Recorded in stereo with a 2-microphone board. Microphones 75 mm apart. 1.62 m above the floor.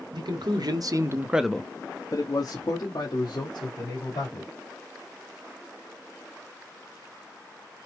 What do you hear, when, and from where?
0.1 s a man speaking: 75° right (ahead or behind), 1.2 m; by 4.5 s 75° left (ahead or behind), 3 m